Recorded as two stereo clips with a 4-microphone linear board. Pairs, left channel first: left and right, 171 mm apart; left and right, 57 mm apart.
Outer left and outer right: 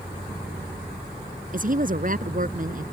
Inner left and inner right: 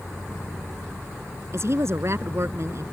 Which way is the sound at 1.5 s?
55° right (ahead or behind).